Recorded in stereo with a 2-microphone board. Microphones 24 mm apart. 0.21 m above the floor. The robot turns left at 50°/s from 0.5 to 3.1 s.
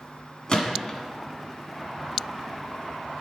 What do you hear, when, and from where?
0.5 s a gunshot: 35° left (ahead or behind), 1.1 m; by 1.0 s 15° left (ahead or behind), 1.1 m